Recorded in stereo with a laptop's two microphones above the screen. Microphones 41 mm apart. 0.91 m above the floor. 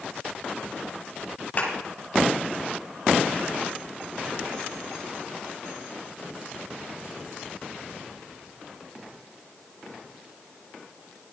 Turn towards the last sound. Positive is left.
turn(degrees=45)  # may be behind; listen again after turning